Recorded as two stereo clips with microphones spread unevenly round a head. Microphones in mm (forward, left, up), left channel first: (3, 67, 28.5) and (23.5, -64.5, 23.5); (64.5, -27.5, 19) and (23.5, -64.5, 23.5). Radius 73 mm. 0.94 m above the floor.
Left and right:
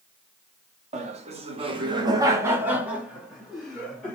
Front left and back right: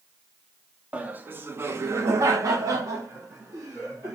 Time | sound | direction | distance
0.9 | laughter | 75° right | 0.8 m